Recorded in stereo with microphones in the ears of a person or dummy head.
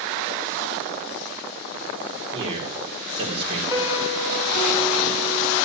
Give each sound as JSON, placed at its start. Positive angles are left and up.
{"t": 2.3, "sound": "a man speaking", "side_deg": -35, "distance_m": 4.0}
{"t": 3.7, "sound": "a piano", "side_deg": -20, "distance_m": 3.5}